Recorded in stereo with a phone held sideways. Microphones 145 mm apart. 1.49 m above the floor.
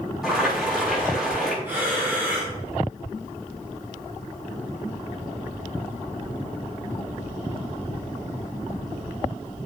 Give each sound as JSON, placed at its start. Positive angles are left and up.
{"t": 0.2, "sound": "boiling", "side_deg": -5, "distance_m": 6.5}
{"t": 1.6, "sound": "breathing", "side_deg": -10, "distance_m": 6.0}